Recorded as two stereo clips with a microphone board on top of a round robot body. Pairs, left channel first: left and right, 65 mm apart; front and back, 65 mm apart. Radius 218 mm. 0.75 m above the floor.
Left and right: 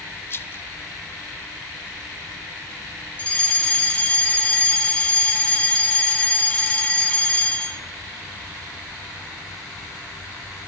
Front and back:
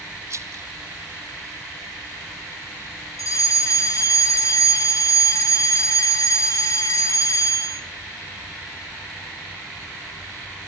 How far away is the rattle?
About 0.7 m.